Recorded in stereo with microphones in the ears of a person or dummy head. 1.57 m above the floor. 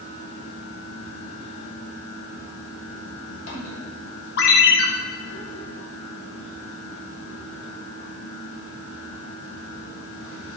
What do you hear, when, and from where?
0.0 s a fan: 75° left (ahead or behind), 4 m
4.4 s a ringtone: 65° left (ahead or behind), 1.8 m